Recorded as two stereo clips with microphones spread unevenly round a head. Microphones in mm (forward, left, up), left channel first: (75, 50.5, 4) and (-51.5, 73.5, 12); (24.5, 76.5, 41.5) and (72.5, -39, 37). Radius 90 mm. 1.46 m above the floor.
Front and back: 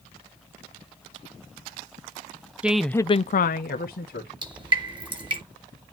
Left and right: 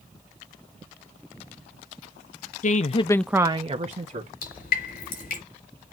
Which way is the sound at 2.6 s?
90° left.